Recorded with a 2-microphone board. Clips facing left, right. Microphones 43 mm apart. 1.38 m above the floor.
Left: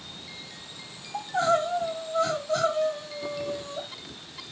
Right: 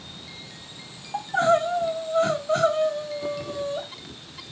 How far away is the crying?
About 1.4 m.